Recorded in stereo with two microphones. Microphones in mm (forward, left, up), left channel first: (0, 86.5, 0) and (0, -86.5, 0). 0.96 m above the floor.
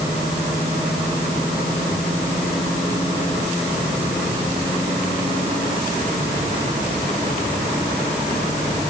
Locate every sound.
Only background noise.